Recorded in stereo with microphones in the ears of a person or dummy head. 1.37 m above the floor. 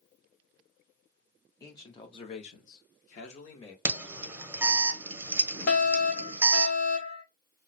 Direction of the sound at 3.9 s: 15° right (ahead or behind).